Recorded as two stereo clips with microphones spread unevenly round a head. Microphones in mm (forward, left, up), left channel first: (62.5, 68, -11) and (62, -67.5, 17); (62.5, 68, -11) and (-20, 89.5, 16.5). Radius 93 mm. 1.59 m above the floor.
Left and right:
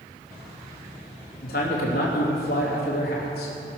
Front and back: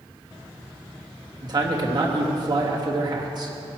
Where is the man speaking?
130° left, 3 m.